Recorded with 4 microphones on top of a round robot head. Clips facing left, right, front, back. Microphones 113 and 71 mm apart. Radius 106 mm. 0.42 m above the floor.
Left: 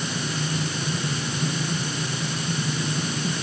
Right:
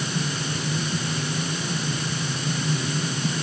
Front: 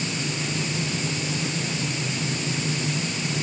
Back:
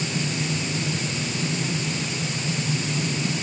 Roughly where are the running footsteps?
I don't hear running footsteps.